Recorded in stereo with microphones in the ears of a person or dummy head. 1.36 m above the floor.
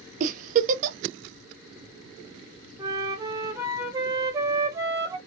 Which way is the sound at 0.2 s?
40° right (ahead or behind).